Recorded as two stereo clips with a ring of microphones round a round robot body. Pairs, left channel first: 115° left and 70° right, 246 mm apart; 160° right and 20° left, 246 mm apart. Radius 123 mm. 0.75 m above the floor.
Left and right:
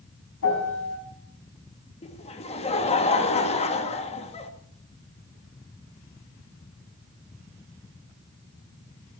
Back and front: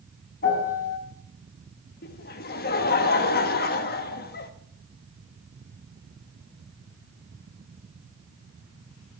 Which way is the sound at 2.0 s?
170° left.